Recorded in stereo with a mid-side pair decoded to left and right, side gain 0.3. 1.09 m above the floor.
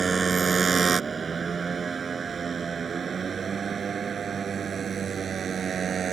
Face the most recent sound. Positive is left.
turn(degrees=-70)